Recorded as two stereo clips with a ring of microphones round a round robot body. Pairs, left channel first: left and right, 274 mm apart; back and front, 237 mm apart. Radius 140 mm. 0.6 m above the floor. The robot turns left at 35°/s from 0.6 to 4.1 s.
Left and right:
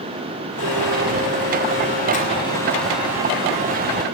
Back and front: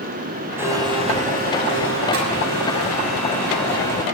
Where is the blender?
80° left, 7.5 m; by 4.0 s 40° right, 7.5 m.